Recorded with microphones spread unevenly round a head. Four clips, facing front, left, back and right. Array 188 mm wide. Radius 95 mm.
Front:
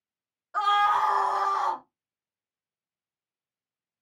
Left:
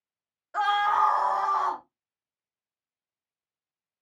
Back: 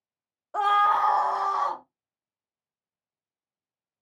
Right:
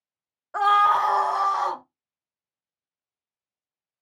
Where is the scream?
150° right, 0.5 m; by 1.8 s 105° right, 1.7 m.